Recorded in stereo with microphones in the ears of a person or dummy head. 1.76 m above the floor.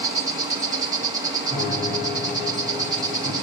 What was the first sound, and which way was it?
An insect, 20° right (ahead or behind).